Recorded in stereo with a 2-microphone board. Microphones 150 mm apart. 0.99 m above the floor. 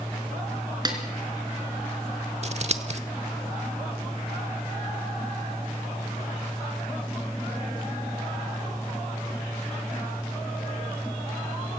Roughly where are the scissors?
Right.